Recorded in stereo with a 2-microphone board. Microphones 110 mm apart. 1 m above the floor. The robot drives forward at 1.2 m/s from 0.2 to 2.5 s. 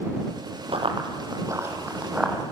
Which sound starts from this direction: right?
Running footsteps, at 0.7 s.